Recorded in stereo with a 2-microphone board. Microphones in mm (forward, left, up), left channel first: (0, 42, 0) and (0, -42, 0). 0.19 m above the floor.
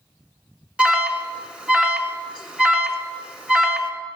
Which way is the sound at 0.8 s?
15° right (ahead or behind).